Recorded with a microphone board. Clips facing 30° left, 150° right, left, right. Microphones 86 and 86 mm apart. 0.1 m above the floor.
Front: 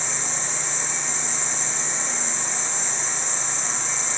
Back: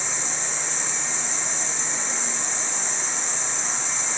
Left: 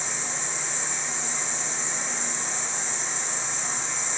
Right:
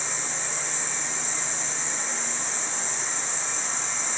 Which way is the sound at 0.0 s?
140° left.